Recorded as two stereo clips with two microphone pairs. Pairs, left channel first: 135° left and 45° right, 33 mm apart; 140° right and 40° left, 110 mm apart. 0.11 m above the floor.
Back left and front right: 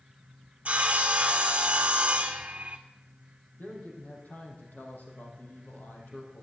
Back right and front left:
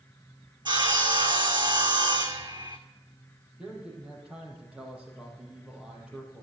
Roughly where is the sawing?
Ahead.